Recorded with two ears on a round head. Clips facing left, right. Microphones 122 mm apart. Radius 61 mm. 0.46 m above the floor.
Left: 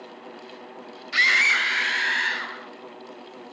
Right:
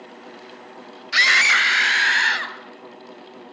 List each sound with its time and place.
1.1 s a scream: 65° right (ahead or behind), 2.5 m; by 2.5 s 75° right (ahead or behind), 3.5 m